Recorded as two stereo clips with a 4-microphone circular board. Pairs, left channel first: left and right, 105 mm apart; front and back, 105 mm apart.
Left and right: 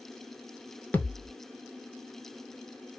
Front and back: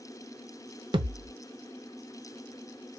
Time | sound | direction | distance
0.9 | a thud | 160° left | 0.7 m